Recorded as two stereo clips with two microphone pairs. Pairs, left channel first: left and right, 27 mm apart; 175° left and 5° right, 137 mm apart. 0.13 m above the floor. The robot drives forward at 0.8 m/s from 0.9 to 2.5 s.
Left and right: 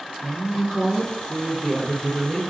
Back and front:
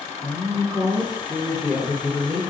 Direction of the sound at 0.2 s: 15° right.